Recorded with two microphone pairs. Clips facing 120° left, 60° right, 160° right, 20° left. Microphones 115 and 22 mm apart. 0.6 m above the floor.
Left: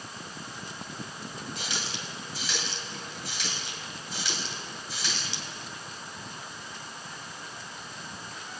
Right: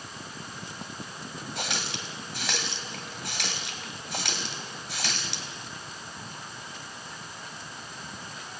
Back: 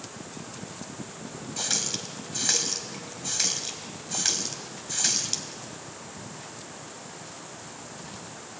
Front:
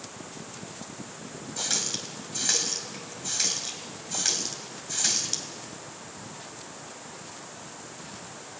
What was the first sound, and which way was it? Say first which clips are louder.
A running tap: right 5 dB, even; 75° right.